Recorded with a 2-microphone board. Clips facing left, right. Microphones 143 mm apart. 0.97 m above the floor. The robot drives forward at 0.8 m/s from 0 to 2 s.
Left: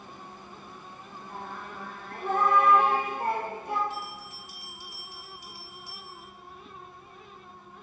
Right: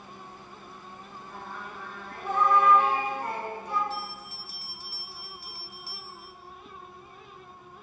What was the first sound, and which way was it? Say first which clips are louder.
Singing: left 2 dB; 50° left (ahead or behind).